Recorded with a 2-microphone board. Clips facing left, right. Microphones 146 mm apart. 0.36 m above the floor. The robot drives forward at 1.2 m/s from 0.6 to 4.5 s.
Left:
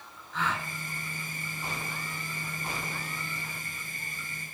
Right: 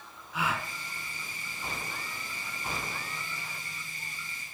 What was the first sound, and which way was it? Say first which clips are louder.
A gasp: even; 10° right (ahead or behind).